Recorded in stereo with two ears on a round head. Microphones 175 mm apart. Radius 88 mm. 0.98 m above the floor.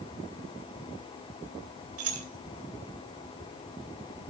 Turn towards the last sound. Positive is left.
turn(degrees=-80)